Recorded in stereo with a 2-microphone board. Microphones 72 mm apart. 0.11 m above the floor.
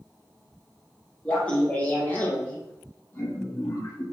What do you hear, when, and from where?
1.2 s laughter: 15° left (ahead or behind), 3.5 m; by 4.0 s 40° left (ahead or behind), 3.5 m